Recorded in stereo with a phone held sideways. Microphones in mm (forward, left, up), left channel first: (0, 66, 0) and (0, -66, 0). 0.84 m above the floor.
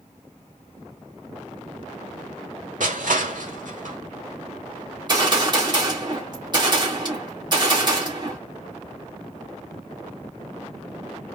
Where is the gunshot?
35° right (ahead or behind), 1.8 m.